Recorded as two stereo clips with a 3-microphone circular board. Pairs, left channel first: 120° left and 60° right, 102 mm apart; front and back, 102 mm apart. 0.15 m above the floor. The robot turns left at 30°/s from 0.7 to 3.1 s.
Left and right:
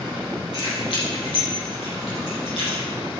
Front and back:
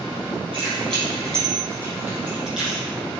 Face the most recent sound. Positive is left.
turn(degrees=80)